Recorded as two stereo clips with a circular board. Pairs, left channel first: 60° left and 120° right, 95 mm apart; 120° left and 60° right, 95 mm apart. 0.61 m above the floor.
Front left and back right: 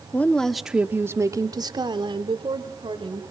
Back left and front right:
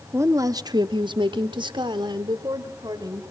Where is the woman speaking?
5° right, 0.9 m; by 3.2 s 105° right, 2 m.